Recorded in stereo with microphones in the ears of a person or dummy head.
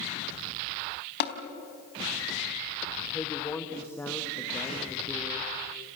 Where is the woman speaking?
10° left (ahead or behind), 1.4 m.